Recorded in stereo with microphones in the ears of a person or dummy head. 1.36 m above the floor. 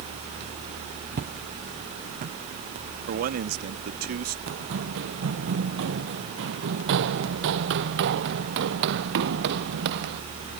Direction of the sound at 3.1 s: 50° right (ahead or behind).